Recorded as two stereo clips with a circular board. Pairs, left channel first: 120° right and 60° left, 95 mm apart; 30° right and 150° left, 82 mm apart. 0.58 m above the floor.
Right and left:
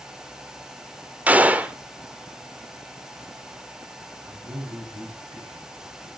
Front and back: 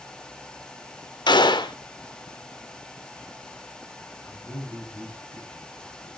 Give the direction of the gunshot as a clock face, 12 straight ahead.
12 o'clock.